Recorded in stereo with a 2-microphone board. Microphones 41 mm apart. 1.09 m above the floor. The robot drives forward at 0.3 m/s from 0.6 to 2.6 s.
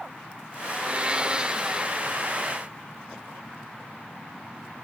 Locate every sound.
0.6 s a blender: 35° right (ahead or behind), 0.5 m; by 2.1 s 20° right (ahead or behind), 0.9 m